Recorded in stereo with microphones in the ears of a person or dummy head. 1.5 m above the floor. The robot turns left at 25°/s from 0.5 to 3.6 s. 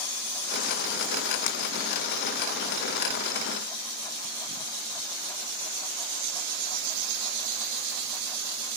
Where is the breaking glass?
55° left (ahead or behind).